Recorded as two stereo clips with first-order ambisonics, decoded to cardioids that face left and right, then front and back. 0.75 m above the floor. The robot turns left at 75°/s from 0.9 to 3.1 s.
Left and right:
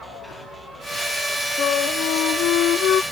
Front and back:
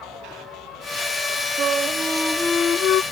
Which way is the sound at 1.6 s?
140° left.